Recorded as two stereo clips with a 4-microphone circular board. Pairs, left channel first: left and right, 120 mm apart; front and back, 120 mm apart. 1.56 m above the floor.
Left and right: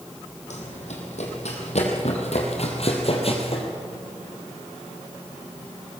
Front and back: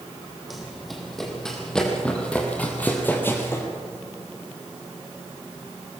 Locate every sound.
0.5 s running footsteps: 90° left, 4 m; by 3.7 s 65° left, 3 m